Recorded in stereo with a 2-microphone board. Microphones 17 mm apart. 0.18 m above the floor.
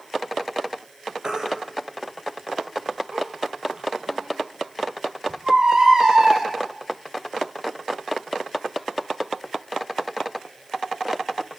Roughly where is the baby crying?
Right.